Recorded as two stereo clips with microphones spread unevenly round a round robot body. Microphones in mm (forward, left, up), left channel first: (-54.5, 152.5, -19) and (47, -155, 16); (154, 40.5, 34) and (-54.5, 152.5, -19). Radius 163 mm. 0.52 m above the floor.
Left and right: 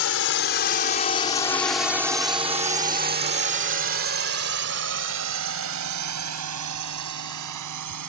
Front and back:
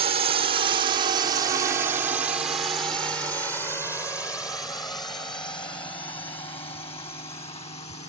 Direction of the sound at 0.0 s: 115° left.